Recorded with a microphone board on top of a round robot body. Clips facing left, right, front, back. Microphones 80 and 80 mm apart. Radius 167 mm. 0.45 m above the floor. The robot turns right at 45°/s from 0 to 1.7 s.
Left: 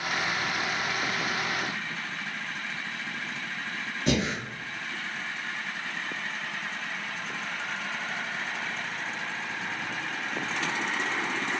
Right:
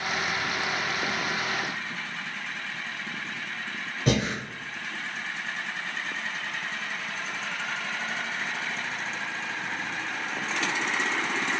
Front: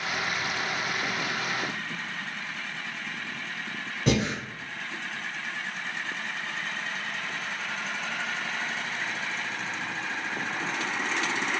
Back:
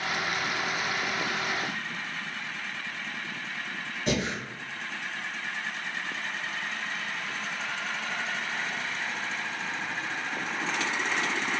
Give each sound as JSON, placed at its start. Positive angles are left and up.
{"t": 4.1, "sound": "breathing", "azimuth_deg": -45, "distance_m": 1.0}